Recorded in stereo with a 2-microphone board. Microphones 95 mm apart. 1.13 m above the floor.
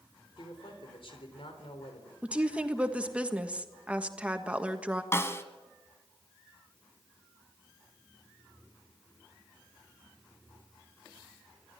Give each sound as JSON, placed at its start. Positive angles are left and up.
{"t": 0.4, "sound": "a man speaking", "side_deg": 60, "distance_m": 3.5}
{"t": 2.2, "sound": "a woman speaking", "side_deg": -15, "distance_m": 1.5}
{"t": 5.1, "sound": "a snare drum", "side_deg": 25, "distance_m": 1.5}